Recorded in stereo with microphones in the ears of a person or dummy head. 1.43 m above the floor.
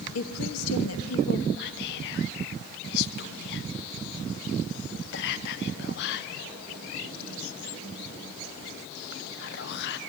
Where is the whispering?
60° left (ahead or behind), 0.6 m.